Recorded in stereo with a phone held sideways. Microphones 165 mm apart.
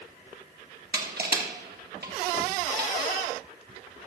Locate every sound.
0.9 s crushing: 75° right (ahead or behind), 1.9 m